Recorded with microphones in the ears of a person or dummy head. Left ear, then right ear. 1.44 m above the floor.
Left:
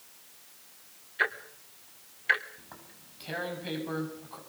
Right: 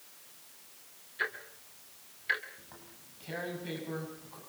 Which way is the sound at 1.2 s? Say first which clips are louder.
Left 6 dB; 25° left (ahead or behind).